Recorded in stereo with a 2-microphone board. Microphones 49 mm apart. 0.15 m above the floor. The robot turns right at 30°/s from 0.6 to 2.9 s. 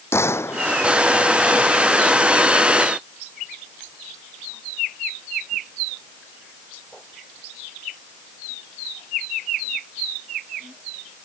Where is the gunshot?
70° left (ahead or behind); by 0.8 s 65° left (ahead or behind).